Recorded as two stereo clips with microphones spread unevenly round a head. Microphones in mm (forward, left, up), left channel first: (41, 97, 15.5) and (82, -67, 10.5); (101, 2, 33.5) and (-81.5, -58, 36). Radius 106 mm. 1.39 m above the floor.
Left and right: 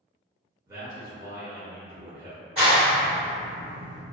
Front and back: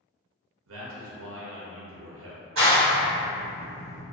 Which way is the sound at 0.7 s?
150° right.